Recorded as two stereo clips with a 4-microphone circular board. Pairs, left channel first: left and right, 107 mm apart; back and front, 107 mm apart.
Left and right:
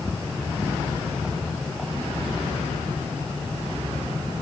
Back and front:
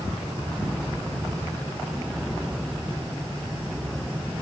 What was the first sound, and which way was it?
Only background noise.